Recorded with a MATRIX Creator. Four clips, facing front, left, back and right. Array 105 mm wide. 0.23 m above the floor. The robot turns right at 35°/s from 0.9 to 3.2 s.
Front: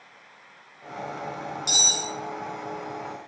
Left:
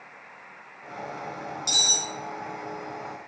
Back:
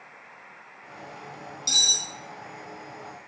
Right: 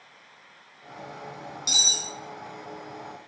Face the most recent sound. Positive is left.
turn(degrees=-80)